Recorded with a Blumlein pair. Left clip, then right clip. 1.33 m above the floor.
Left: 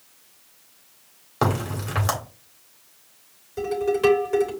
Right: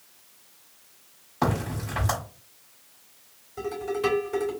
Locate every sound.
1.4 s a crack: 40° left, 3 m
3.6 s dishes clattering: 65° left, 3.5 m